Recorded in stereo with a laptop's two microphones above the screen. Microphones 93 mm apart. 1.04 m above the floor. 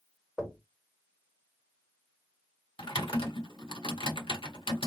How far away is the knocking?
About 1.7 m.